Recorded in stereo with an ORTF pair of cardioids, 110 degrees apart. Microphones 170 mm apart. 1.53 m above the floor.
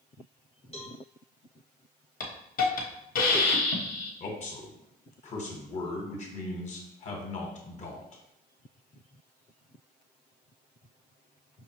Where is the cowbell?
35° left, 1.2 m.